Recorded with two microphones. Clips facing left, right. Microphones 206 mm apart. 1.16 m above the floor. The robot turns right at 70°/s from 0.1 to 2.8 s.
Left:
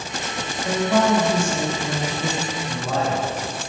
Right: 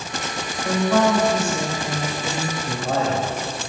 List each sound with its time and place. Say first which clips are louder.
0.6 s a woman speaking: right 1 dB; 10° right, 3 m; by 2.5 s 120° left, 3 m
2.6 s a man speaking: right 2 dB; 50° right (ahead or behind), 3 m; by 3.6 s 60° right (ahead or behind), 3 m